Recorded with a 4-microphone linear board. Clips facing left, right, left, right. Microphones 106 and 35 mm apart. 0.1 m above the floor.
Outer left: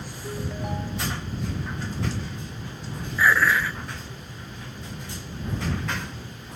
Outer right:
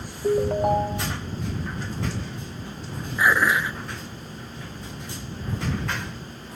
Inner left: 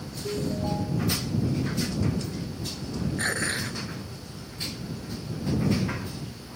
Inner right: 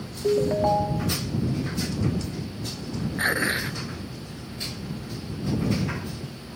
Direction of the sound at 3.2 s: 20° right (ahead or behind).